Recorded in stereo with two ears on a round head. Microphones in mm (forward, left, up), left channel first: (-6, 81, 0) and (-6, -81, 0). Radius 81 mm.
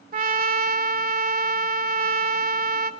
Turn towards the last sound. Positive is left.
turn(degrees=-50)  # may be behind; listen again after turning